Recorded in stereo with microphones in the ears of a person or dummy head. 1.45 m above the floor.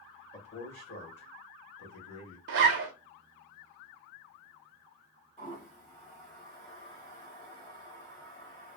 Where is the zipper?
60° right (ahead or behind), 0.6 m.